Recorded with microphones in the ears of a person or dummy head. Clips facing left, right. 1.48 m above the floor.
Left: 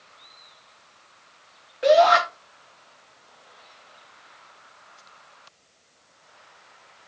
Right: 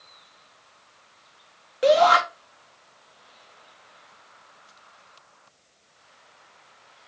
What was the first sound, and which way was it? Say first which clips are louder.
A shout: left 1 dB; 45° right (ahead or behind).